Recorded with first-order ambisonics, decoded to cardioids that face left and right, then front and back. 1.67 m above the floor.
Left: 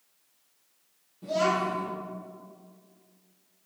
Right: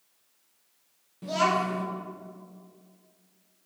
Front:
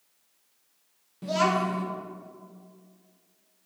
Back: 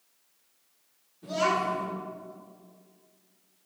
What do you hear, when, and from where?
1.2 s a child speaking: 25° right, 1.5 m